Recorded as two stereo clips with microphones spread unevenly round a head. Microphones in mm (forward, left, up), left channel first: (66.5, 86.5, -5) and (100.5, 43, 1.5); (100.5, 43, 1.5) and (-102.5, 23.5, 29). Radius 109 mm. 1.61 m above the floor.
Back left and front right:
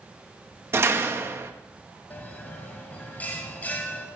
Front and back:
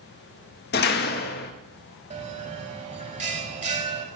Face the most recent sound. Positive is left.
turn(degrees=-175)